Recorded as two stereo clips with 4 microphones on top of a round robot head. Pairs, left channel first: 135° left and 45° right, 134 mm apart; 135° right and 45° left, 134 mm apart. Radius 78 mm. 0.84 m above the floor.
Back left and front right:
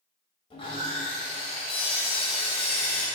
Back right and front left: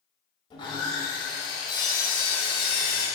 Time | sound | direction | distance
0.5 | sawing | straight behind | 1.9 m